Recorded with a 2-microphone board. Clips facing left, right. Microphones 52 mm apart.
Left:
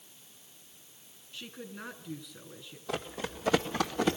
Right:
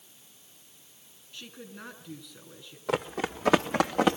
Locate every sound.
1.3 s a woman speaking: centre (ahead or behind), 5.5 m
2.9 s running footsteps: 80° right, 2.5 m; by 4.2 s 65° right (ahead or behind), 2.5 m